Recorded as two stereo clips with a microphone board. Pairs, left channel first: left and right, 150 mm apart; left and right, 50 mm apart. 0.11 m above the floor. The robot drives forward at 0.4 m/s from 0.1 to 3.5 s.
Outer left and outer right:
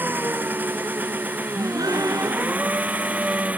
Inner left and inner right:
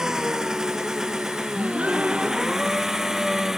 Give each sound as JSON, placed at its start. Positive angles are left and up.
{"t": 0.0, "sound": "an engine running", "side_deg": -10}
{"t": 1.6, "sound": "a gasp", "side_deg": -25}